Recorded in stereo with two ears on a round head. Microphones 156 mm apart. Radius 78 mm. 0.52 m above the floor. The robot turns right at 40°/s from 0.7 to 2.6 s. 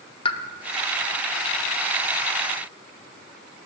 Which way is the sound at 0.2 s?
30° left (ahead or behind).